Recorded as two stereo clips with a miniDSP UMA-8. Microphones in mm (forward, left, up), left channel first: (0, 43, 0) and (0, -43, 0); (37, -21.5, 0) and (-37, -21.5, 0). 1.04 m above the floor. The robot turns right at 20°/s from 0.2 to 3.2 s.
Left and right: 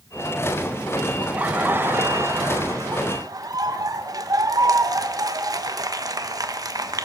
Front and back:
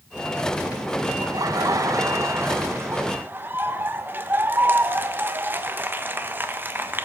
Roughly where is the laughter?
Behind.